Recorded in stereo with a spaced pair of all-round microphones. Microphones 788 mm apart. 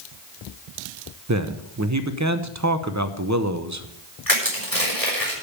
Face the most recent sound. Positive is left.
turn(degrees=25)  # may be behind; listen again after turning